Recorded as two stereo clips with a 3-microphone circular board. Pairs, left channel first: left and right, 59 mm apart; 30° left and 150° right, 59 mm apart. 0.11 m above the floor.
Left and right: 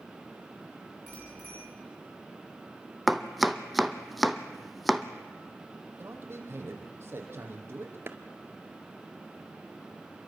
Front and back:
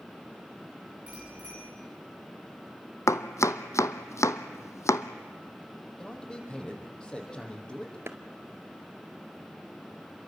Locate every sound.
1.1 s a bicycle bell: 145° left, 8.5 m
3.1 s chopping: straight ahead, 1.0 m
6.0 s a man speaking: 45° right, 4.5 m
8.1 s a clap: 125° right, 1.4 m